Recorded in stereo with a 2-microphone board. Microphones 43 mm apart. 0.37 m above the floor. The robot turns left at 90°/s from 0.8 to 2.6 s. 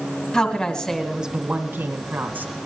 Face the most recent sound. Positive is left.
turn(degrees=-145)